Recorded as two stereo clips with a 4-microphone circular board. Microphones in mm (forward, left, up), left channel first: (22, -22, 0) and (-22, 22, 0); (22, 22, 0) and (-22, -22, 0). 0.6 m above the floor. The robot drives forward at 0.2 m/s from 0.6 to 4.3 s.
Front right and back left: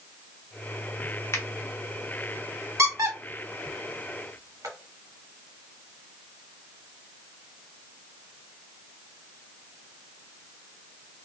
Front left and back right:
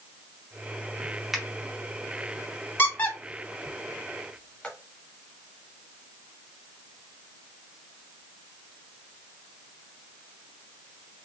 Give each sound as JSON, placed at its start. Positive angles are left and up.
{"t": 1.3, "sound": "a finger snap", "azimuth_deg": -50, "distance_m": 0.7}
{"t": 2.8, "sound": "a squeak", "azimuth_deg": 100, "distance_m": 0.9}